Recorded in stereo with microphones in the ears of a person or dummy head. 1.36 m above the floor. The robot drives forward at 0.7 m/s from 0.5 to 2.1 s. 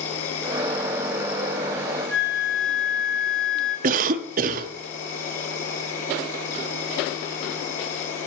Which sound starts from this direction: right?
A cough, at 3.8 s.